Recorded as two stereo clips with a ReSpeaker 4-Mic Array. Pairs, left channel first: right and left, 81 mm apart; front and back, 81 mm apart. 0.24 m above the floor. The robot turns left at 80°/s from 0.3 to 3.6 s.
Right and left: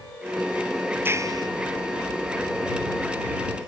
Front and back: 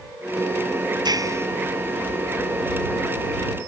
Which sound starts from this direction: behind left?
A clap, at 1.1 s.